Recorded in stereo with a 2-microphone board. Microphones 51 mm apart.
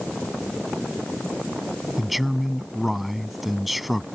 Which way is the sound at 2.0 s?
Centre (ahead or behind).